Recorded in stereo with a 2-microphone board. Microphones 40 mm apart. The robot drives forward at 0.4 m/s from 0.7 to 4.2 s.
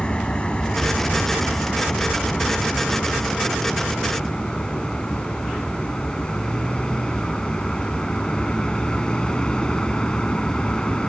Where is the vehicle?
20° left (ahead or behind); by 11.1 s 15° left (ahead or behind).